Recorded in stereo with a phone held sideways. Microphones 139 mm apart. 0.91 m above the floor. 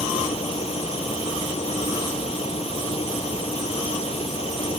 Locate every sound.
0.0 s a fan: 45° left (ahead or behind)